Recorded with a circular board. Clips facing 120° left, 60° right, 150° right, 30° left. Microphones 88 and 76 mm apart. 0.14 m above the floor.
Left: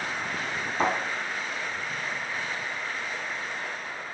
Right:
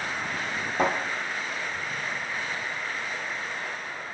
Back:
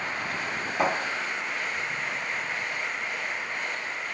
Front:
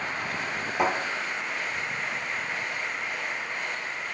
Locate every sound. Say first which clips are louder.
0.8 s a thud: right 1 dB, even; 55° right, 0.9 m